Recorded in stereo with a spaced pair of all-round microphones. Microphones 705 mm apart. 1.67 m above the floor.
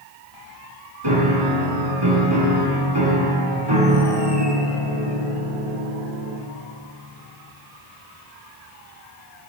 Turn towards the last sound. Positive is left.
turn(degrees=-35)  # may be behind; listen again after turning